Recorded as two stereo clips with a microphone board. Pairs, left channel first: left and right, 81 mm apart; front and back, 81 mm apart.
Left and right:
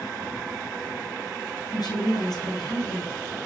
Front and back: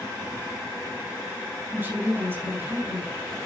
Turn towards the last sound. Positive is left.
turn(degrees=115)